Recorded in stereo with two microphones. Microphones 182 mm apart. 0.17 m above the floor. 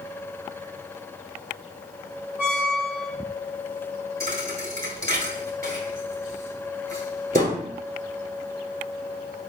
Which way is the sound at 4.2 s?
50° right (ahead or behind).